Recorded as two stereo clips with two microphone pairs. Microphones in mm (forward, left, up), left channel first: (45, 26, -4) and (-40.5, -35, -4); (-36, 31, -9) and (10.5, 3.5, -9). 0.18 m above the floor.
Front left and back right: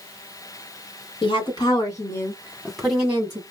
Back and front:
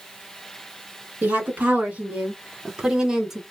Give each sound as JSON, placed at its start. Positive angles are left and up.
{"t": 1.2, "sound": "a woman speaking", "azimuth_deg": 20, "distance_m": 1.7}